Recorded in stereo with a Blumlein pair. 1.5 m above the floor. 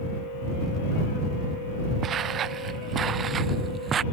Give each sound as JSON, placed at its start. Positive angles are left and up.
{"t": 2.0, "sound": "footsteps", "azimuth_deg": -30}